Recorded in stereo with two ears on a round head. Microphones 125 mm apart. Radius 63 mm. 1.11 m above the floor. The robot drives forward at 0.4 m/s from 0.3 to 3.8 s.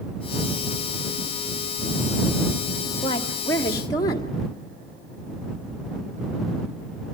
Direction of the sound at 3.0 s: 30° left (ahead or behind).